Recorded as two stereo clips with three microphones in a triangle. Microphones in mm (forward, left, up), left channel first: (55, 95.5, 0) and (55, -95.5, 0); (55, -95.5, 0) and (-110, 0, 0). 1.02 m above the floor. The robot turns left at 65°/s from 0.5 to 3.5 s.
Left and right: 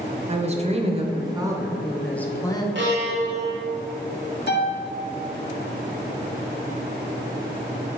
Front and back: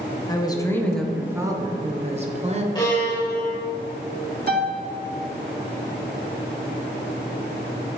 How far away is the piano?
About 1.1 m.